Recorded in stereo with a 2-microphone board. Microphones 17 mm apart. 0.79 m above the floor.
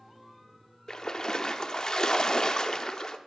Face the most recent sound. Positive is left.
turn(degrees=35)  # may be behind; listen again after turning